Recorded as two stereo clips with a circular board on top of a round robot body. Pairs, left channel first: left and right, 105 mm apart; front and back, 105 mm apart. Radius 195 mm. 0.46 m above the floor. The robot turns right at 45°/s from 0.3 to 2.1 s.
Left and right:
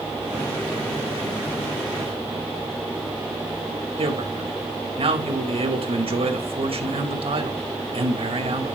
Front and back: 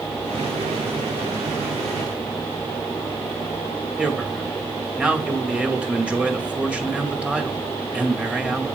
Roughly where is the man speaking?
Right.